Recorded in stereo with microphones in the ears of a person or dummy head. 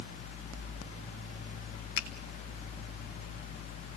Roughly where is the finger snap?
Left.